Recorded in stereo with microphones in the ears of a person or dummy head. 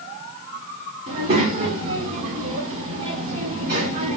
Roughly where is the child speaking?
Right.